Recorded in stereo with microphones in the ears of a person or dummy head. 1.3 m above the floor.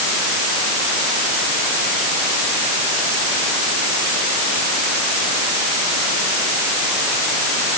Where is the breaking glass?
No breaking glass in this recording.